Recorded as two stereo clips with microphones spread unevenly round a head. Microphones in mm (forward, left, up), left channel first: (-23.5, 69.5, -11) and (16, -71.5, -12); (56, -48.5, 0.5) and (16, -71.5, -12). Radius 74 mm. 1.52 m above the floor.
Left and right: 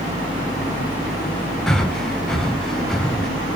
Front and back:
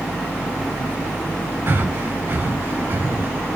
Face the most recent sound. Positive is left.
turn(degrees=-170)